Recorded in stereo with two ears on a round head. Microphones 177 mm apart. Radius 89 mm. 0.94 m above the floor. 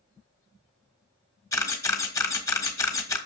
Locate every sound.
1.5 s a camera shutter: 15° left (ahead or behind), 1.4 m